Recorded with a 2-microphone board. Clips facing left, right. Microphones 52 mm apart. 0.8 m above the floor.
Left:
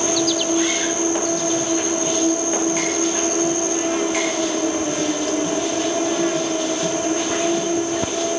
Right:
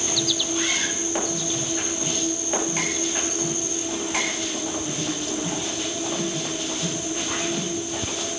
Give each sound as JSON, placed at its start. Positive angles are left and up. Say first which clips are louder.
{"t": 0.0, "sound": "an insect", "louder": "left 7 dB", "side_deg": 60}